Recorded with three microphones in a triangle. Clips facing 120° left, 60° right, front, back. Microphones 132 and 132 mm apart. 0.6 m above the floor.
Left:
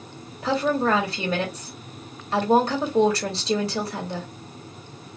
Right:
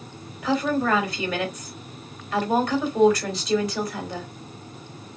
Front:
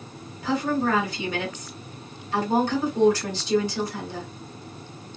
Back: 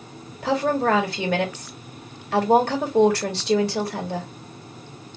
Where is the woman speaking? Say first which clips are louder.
Left 1 dB, back 3 dB; 175° left, 2 m.